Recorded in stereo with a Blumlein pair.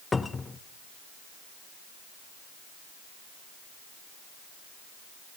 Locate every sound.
0.1 s a cupboard door: 10° left, 0.7 m